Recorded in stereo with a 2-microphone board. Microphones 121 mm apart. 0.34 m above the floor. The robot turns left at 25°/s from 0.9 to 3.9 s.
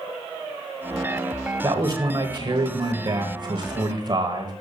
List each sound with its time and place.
1.6 s a man speaking: 55° right, 1.2 m; by 4.5 s 115° right, 1.2 m